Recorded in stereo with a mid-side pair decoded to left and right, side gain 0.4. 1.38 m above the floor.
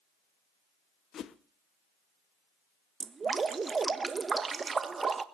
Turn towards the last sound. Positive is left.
turn(degrees=-40)